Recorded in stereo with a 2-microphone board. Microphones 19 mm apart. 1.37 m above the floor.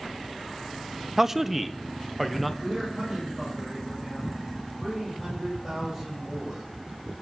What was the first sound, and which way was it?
A man speaking, 15° right (ahead or behind).